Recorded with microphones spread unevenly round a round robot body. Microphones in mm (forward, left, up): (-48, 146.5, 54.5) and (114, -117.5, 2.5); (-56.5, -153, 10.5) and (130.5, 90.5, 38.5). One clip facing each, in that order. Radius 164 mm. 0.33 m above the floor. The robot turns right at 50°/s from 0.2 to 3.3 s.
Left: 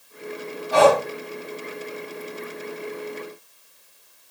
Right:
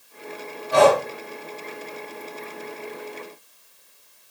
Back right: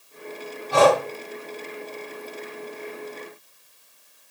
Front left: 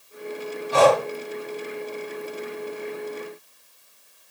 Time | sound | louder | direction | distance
0.7 | breathing | even, even | 135° right | 4 m